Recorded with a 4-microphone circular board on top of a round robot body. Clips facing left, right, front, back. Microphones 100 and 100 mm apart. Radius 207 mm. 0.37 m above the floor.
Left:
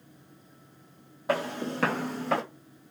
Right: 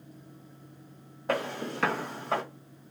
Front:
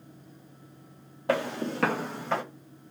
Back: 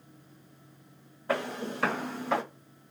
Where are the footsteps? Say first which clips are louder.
Left 2 dB, front 3 dB; 5° left, 1.1 m; by 2.4 s 100° left, 0.8 m.